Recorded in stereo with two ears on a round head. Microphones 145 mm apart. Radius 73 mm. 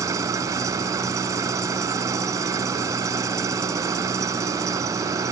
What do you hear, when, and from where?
0.0 s an engine running: 20° right (ahead or behind)